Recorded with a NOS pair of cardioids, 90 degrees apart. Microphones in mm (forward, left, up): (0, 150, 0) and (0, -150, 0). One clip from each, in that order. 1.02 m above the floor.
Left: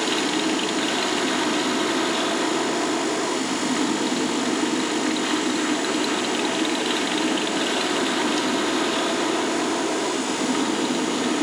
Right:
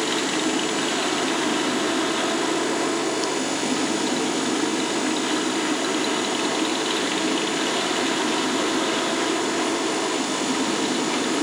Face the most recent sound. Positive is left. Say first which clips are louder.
# left 1 dB
turn(degrees=15)